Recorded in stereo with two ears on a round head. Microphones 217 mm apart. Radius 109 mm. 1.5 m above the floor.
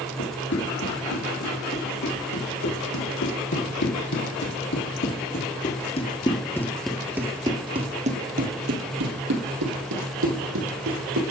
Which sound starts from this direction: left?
Running footsteps, at 0.2 s.